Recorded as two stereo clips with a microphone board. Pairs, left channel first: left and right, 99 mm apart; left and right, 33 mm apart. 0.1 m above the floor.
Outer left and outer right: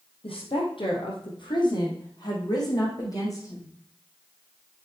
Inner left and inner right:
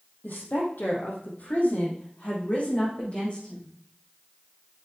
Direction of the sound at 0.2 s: 70° left (ahead or behind).